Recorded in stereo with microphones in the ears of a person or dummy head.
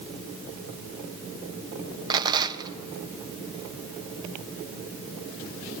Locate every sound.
2.1 s a rattle: 25° right (ahead or behind), 1.1 m